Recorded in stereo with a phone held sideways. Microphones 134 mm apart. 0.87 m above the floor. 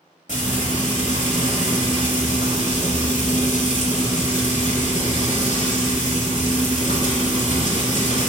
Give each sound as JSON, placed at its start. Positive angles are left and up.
{"t": 0.3, "sound": "frying", "side_deg": 65, "distance_m": 1.9}